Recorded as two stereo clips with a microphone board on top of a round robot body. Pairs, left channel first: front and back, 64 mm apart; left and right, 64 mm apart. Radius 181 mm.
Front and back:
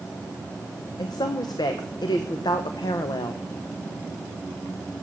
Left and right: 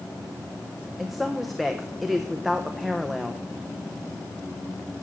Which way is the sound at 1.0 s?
5° right.